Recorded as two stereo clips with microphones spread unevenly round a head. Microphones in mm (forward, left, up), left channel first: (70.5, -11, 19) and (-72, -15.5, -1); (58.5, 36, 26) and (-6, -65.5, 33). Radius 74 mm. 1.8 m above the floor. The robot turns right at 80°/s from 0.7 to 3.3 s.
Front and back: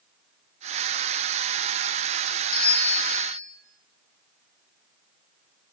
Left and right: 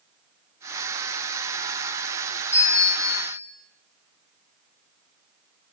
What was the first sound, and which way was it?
A bell, 15° right.